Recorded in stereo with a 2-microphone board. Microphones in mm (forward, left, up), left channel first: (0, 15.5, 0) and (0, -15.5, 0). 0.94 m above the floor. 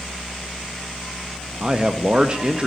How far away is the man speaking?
About 0.7 m.